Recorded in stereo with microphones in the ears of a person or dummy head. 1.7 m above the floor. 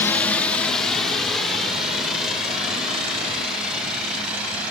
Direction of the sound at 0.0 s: 10° left (ahead or behind).